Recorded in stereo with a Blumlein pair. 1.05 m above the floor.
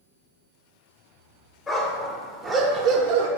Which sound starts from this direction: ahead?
A dog barking, at 1.7 s.